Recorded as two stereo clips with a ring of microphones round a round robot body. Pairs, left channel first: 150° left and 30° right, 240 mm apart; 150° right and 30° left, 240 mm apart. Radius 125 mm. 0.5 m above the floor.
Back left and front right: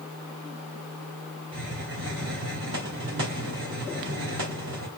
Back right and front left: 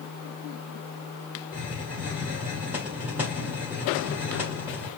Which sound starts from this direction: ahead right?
A hiss, at 1.5 s.